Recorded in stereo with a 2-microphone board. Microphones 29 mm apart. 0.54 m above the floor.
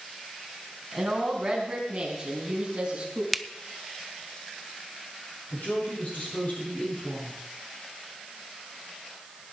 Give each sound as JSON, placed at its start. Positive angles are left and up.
{"t": 0.9, "sound": "a woman speaking", "side_deg": -10, "distance_m": 4.5}
{"t": 3.3, "sound": "a finger snap", "side_deg": 0, "distance_m": 0.6}
{"t": 5.5, "sound": "a woman speaking", "side_deg": 65, "distance_m": 8.0}